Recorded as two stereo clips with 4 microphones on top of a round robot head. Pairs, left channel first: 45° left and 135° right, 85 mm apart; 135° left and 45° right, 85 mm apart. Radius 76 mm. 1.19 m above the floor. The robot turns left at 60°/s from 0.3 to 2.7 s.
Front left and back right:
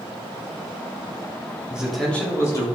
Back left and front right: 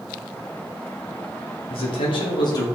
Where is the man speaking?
145° left, 4 m; by 2.6 s 90° left, 4 m.